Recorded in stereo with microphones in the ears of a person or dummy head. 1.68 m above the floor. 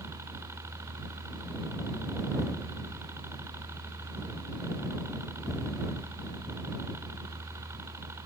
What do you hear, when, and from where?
0.0 s a helicopter: 15° right (ahead or behind)